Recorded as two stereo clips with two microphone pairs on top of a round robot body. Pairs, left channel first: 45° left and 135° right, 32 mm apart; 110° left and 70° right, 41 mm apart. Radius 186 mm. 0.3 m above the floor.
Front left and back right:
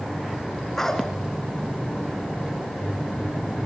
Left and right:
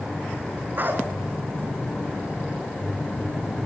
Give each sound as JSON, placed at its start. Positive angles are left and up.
{"t": 0.8, "sound": "a dog barking", "azimuth_deg": -30, "distance_m": 2.5}